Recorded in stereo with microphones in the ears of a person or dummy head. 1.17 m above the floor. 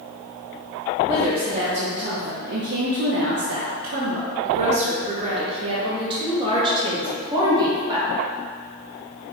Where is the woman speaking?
30° right (ahead or behind), 1.3 m; by 8.1 s 20° right (ahead or behind), 3 m.